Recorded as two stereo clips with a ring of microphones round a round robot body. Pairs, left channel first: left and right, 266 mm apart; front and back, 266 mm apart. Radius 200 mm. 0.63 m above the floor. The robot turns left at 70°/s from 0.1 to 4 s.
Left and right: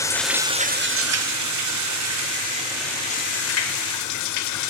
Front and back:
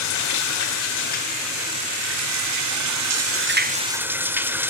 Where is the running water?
10° left, 2.0 m; by 4.7 s 100° left, 2.0 m.